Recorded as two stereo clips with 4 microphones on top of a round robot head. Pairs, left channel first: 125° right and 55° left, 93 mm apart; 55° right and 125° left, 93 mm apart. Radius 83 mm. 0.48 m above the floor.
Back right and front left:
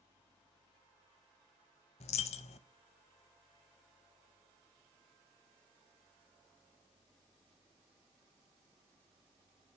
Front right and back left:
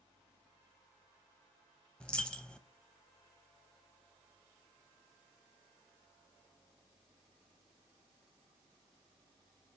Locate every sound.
2.0 s a dropped coin: 135° right, 0.5 m